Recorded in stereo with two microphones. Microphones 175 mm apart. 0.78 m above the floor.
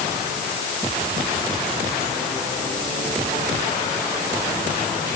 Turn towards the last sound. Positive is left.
No sound to turn to.